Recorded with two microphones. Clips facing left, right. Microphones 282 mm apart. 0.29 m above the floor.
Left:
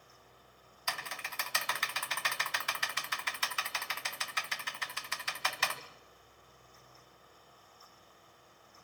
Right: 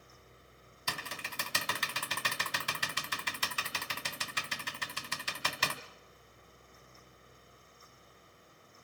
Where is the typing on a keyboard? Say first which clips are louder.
Right 2 dB; 40° right (ahead or behind), 1.3 m.